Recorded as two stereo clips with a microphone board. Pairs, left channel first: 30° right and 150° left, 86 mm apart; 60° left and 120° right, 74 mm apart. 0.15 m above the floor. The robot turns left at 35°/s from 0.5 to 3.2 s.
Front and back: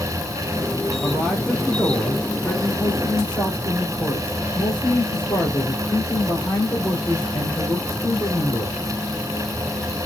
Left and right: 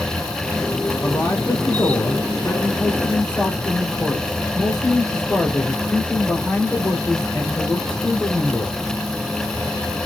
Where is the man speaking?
70° left, 2 m; by 8.8 s 5° right, 2 m.